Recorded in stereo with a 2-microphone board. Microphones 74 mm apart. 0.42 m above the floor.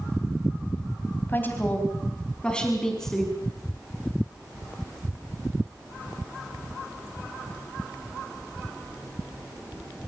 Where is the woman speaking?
30° left (ahead or behind), 3.5 m; by 3.3 s 5° left (ahead or behind), 5 m.